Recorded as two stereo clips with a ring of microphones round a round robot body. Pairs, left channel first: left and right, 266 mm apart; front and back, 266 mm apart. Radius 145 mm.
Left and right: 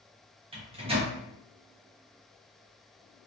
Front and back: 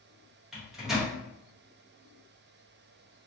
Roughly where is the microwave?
Right.